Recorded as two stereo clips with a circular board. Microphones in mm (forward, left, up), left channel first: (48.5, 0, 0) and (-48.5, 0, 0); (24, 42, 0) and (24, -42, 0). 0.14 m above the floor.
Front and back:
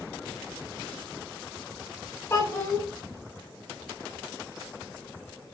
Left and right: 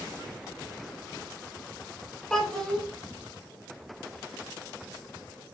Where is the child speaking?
15° left, 0.7 m.